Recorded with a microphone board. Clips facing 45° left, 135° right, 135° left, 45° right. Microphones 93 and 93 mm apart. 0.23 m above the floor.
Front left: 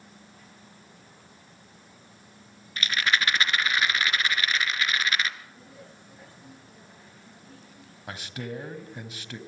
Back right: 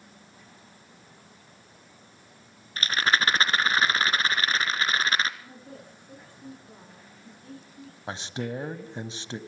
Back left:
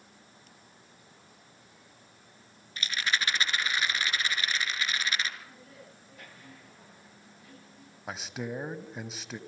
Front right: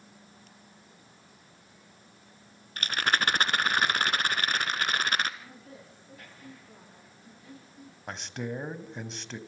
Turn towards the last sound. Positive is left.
turn(degrees=-145)